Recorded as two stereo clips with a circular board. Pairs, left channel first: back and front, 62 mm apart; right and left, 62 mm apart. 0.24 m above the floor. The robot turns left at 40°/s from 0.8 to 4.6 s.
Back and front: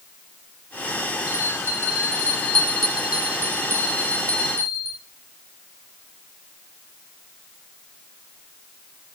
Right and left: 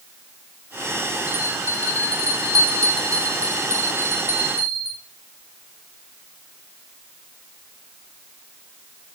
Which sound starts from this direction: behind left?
A bell, at 1.3 s.